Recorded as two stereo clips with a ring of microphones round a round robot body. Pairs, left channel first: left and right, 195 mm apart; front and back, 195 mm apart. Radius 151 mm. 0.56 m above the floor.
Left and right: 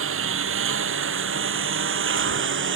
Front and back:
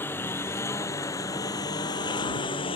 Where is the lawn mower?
80° right; by 2.8 s 70° right.